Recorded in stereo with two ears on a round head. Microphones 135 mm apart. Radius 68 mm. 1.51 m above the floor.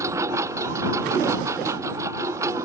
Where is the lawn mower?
20° right (ahead or behind).